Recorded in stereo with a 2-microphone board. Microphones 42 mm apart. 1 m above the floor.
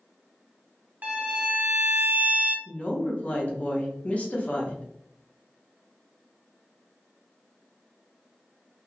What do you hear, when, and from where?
1.0 s a violin: 35° right (ahead or behind), 0.7 m
2.6 s a woman speaking: 30° left (ahead or behind), 0.7 m